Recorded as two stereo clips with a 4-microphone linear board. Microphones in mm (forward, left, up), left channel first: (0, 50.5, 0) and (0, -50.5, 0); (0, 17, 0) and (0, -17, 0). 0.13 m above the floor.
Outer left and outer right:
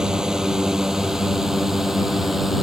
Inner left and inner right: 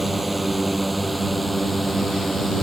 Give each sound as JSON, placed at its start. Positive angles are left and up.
{"t": 0.0, "sound": "a drone", "side_deg": -5}